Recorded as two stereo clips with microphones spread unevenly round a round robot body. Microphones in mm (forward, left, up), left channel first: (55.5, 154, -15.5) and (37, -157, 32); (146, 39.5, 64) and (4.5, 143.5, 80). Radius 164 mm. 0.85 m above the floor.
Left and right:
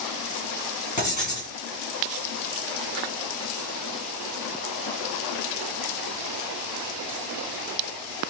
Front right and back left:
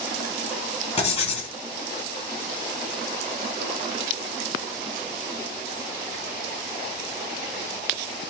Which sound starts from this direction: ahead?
Writing, at 1.0 s.